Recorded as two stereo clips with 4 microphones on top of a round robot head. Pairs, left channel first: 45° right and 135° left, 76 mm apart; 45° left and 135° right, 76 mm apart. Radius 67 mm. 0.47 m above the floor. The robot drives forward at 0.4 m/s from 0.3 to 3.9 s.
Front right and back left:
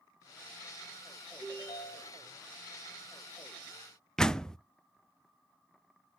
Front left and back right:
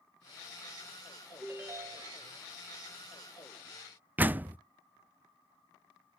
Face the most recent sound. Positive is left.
turn(degrees=-110)